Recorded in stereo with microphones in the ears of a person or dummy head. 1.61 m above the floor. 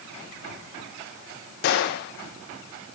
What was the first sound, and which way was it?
A gunshot, 60° left (ahead or behind).